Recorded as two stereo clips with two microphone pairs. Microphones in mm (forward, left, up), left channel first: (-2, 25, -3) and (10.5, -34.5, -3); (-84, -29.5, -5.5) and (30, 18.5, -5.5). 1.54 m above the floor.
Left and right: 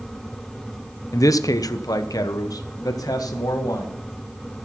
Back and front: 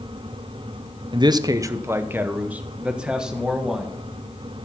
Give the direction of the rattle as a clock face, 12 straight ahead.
I don't hear a rattle.